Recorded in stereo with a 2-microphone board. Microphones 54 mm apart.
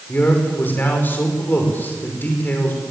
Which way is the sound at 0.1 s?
35° left (ahead or behind).